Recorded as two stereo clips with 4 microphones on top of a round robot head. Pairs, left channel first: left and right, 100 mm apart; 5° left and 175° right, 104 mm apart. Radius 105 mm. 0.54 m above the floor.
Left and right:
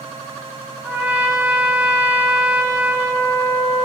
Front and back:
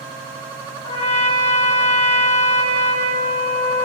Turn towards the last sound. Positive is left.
turn(degrees=-20)